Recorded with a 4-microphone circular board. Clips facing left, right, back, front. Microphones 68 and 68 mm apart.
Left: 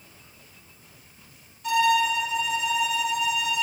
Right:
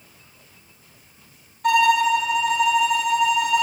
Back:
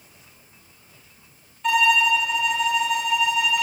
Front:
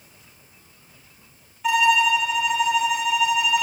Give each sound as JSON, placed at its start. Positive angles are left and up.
{"t": 1.6, "sound": "a violin", "azimuth_deg": -85, "distance_m": 1.7}